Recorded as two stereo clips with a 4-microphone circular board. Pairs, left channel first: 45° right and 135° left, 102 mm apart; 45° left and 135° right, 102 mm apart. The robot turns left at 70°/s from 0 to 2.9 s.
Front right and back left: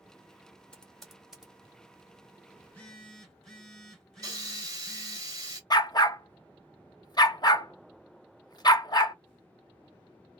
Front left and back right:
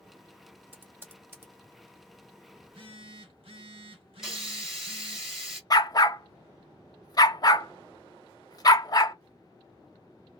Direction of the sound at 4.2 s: 145° left.